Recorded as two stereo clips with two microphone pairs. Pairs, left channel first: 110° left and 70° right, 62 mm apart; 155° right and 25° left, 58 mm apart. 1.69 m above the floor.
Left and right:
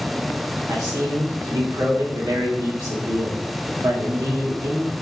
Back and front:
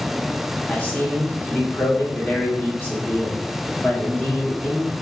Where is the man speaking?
95° right, 1.4 m.